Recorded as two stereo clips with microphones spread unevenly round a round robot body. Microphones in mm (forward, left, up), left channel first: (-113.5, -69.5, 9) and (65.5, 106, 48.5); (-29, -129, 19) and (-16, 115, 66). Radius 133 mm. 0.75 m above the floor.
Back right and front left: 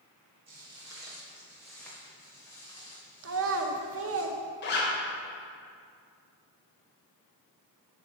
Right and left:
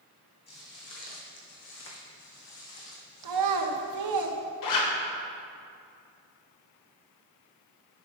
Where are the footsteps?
20° right, 1.8 m; by 4.2 s 75° right, 2.5 m.